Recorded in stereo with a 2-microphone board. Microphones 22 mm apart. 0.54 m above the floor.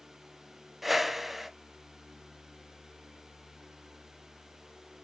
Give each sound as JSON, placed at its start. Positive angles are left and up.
{"t": 0.8, "sound": "a whoosh", "side_deg": -10, "distance_m": 0.6}